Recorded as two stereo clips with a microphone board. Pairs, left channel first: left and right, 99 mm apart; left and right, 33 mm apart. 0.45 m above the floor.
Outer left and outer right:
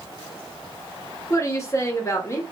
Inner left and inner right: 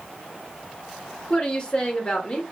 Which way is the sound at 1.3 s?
30° left (ahead or behind).